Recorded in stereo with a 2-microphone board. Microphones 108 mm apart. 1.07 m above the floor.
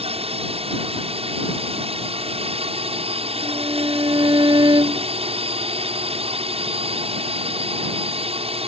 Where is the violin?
40° right (ahead or behind).